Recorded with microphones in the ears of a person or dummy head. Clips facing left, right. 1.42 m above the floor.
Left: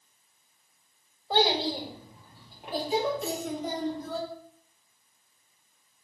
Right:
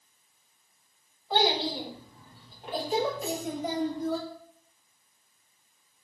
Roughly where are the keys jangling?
Centre.